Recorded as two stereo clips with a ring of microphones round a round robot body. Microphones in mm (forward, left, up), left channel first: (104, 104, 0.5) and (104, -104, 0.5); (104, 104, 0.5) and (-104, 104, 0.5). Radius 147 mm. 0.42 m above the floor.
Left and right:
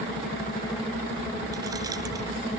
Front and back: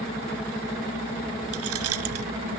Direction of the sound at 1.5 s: 170° right.